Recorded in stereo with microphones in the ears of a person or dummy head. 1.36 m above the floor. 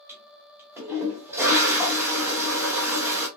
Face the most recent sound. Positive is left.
turn(degrees=-10)  # may be behind; listen again after turning